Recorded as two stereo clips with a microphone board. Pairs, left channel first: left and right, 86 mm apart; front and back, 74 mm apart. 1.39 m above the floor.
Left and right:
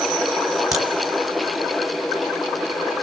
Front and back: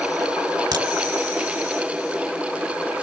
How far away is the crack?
About 3.5 m.